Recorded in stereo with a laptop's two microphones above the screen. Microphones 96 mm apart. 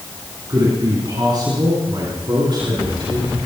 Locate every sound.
0.5 s a man speaking: 45° right (ahead or behind), 8.5 m; by 3.4 s 50° right (ahead or behind), 10 m